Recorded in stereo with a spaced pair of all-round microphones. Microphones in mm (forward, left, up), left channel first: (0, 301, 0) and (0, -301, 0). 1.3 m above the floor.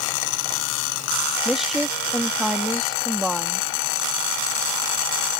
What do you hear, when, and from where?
1.4 s a woman speaking: centre (ahead or behind)